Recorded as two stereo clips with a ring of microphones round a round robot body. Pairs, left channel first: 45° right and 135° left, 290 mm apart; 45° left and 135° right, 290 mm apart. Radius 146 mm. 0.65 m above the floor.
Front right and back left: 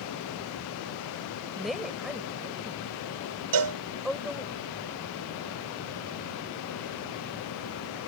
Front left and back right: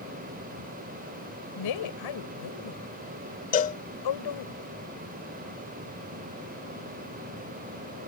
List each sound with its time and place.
1.6 s a woman speaking: 45° left
3.5 s a cowbell: 110° left